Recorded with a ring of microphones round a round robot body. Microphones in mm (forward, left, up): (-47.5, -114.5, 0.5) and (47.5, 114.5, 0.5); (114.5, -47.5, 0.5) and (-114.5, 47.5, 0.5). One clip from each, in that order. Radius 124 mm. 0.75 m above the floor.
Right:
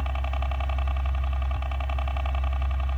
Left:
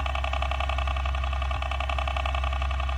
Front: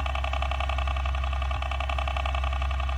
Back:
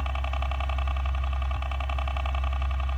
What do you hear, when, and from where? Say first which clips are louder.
0.0 s a helicopter: left 5 dB, front 3 dB; 40° left